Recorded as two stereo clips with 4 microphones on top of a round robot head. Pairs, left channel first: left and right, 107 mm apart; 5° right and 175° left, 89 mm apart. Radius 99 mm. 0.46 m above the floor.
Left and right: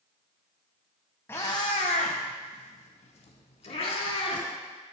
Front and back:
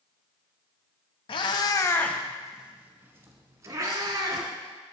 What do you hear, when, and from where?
1.3 s a cat meowing: 15° left, 0.5 m; by 4.5 s 125° left, 1.4 m